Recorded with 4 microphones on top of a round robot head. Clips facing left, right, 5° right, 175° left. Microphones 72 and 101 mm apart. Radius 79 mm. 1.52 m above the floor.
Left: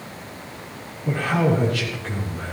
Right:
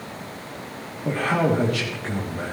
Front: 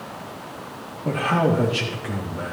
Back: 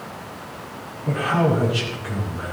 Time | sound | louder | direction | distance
1.1 | a man speaking | even, even | 50° right | 2.5 m